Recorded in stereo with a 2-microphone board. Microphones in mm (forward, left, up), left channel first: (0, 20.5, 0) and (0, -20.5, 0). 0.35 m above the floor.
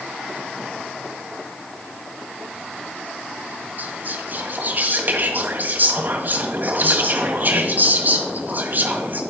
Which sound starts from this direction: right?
Whispering, at 3.8 s.